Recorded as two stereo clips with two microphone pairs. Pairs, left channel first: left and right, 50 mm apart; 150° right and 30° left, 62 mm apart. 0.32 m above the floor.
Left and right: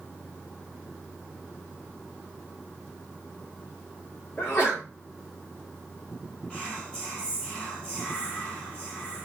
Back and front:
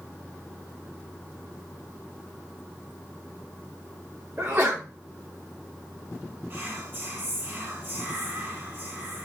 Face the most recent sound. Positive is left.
turn(degrees=40)